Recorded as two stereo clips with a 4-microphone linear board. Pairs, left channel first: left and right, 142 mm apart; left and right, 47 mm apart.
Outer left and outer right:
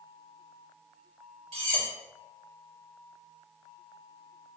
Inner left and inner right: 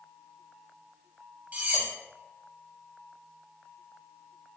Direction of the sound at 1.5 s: 45° right (ahead or behind).